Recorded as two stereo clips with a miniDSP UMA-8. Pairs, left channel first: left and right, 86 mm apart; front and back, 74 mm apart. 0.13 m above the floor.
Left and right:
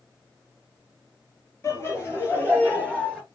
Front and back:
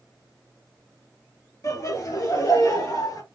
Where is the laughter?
35° left, 4 m; by 3.2 s 10° left, 3 m.